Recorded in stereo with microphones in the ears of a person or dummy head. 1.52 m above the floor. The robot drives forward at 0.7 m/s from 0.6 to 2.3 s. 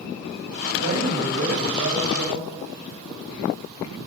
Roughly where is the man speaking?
Right.